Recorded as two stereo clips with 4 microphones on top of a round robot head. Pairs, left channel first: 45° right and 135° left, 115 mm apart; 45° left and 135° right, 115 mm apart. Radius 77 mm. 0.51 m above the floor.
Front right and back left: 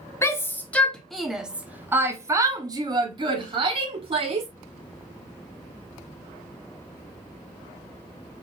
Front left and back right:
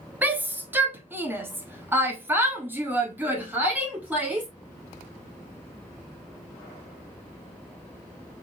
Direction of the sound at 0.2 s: 80° right.